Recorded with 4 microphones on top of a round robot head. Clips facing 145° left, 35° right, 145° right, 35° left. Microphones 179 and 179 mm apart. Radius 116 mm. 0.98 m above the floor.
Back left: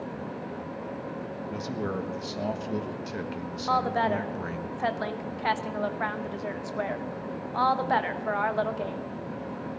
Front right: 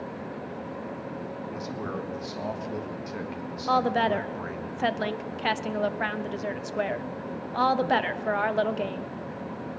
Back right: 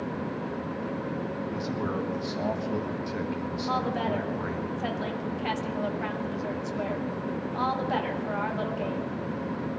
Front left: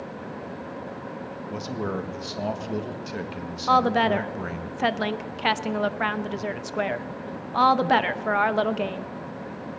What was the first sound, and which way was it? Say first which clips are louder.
A man speaking: back left 4 dB, front left 4 dB; 90° left.